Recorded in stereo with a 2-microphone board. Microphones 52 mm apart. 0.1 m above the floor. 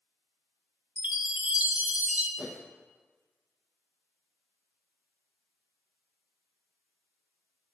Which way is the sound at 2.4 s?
10° right (ahead or behind).